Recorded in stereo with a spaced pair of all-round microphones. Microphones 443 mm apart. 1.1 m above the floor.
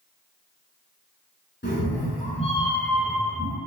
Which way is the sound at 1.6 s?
25° left (ahead or behind).